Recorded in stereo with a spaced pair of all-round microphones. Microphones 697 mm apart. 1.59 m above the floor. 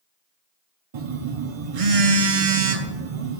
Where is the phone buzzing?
55° right (ahead or behind), 0.7 m.